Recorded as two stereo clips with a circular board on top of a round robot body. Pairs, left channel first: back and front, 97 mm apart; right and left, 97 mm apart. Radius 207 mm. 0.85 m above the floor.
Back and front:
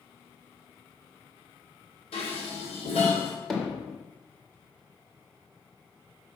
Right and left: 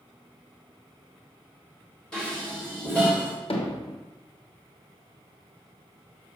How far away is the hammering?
About 1.5 m.